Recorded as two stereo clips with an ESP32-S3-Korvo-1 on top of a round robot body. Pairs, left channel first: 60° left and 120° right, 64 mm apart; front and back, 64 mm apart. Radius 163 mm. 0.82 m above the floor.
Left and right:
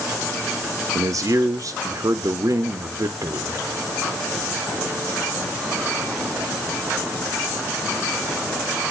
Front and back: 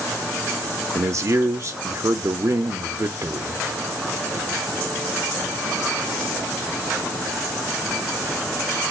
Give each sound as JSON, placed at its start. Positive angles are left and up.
{"t": 0.9, "sound": "a man speaking", "azimuth_deg": -145, "distance_m": 0.5}